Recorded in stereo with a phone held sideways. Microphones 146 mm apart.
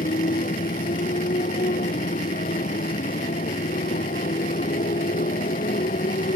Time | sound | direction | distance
0.0 | a motorcycle | 75° left (ahead or behind) | ?